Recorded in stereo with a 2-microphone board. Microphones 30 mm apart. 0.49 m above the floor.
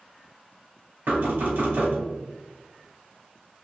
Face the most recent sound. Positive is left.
turn(degrees=-80)